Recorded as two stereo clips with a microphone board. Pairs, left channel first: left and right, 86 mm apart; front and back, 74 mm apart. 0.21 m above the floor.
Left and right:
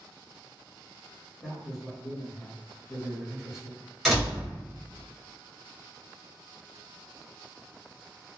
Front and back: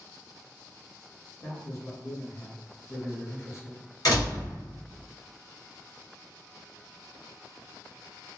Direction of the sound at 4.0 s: 5° left.